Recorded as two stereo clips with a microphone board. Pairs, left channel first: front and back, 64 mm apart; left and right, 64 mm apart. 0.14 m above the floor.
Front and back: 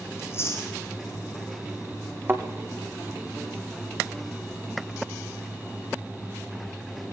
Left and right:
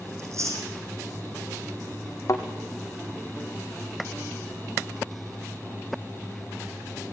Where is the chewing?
50° right, 7 m.